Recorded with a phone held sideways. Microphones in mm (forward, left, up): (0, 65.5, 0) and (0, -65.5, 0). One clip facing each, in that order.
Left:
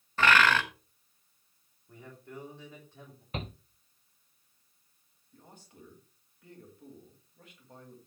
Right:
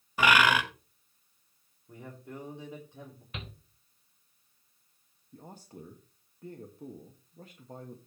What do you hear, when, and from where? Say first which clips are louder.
0.2 s a bird: even; 15° right (ahead or behind), 1.3 m
1.9 s a man speaking: right 3 dB; 20° right (ahead or behind), 3 m
3.3 s a shout: left 7 dB; 40° left (ahead or behind), 0.6 m
5.3 s a man speaking: right 7 dB; 35° right (ahead or behind), 1.5 m